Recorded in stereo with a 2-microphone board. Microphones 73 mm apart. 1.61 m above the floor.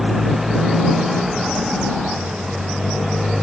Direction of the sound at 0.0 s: Centre (ahead or behind).